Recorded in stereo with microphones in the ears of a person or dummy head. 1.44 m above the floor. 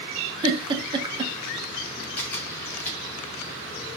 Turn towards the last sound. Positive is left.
turn(degrees=10)  # may be behind; listen again after turning